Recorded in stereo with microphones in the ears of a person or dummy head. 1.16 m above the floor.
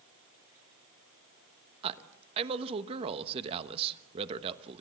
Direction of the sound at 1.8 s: 35° right (ahead or behind).